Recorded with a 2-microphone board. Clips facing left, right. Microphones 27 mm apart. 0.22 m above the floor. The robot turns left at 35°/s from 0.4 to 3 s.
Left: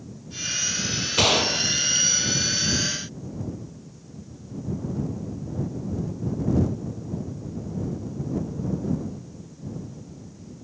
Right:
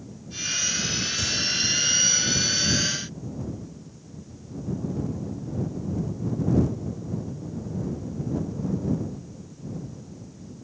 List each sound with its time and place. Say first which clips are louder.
1.2 s a gunshot: left 8 dB; 70° left (ahead or behind); by 2.1 s 75° left (ahead or behind)